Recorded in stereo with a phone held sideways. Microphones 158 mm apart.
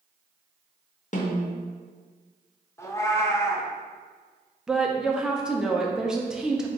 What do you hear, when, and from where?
1.1 s a snare drum: 50° left (ahead or behind), 0.8 m
2.8 s a cat meowing: 15° left (ahead or behind), 0.5 m
4.7 s a woman speaking: 5° right (ahead or behind), 0.6 m